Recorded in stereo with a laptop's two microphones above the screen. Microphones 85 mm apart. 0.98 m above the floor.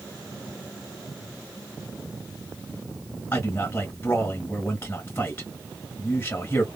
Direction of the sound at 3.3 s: 25° left (ahead or behind).